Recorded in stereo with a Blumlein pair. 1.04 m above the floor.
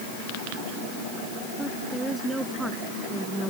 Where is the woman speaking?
10° right; by 3.5 s 5° right.